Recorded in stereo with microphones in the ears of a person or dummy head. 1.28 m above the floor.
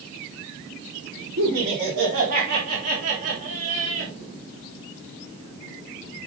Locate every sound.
1.4 s laughter: 70° right (ahead or behind), 4 m; by 4.1 s 80° right, 3 m